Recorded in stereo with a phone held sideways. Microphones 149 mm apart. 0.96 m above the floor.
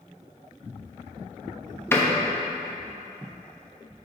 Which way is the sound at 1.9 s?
15° left (ahead or behind).